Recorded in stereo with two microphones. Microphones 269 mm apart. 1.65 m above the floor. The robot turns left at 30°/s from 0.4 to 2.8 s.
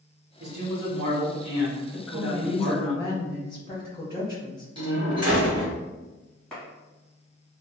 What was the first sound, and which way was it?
A man speaking, 65° right.